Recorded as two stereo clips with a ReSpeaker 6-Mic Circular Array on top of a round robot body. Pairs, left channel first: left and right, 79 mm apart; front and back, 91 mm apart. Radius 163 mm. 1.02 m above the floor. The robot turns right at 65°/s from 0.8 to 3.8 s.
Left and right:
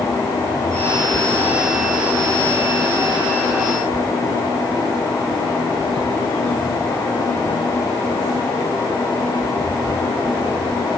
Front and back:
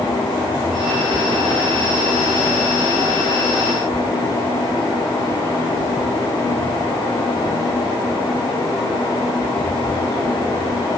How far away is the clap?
I don't hear a clap.